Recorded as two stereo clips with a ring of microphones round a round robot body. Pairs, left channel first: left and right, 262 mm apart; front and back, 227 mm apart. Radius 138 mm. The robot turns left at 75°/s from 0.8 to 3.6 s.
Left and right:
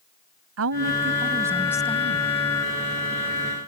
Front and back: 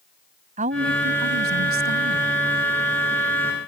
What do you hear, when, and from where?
0.6 s a woman speaking: 120° right; by 2.3 s 125° left